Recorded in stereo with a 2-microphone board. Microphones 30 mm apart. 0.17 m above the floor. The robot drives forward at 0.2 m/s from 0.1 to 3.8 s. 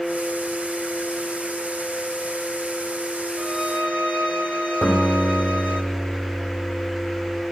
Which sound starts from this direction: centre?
A guitar, at 4.8 s.